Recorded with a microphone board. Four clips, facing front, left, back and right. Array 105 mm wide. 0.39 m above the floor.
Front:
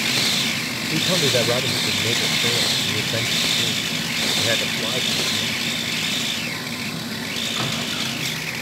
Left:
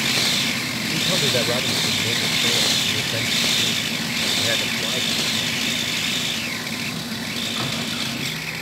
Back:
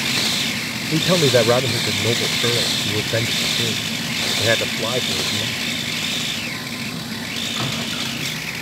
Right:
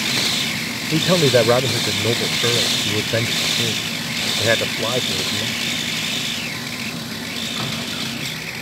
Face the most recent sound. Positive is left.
turn(degrees=-125)